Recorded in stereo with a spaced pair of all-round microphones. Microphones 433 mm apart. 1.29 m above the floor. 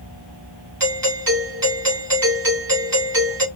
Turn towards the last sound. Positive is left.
turn(degrees=-50)  # may be behind; listen again after turning